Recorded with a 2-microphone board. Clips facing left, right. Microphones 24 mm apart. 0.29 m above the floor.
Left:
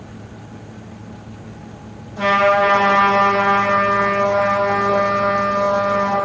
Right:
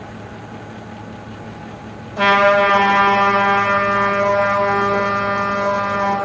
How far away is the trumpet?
About 5 m.